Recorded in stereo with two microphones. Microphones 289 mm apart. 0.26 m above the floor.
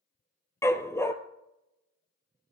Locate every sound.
0.6 s a dog barking: 10° left (ahead or behind), 1.3 m